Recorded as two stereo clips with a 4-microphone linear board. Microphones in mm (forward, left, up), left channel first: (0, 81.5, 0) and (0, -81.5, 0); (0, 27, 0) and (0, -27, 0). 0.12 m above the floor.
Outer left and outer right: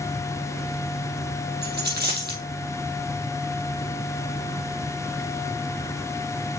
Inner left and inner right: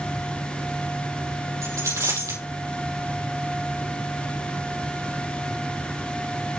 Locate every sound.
1.6 s a dropped coin: 80° right, 4.5 m